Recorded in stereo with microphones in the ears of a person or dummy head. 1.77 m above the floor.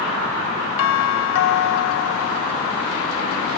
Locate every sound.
0.8 s a doorbell: 75° left (ahead or behind)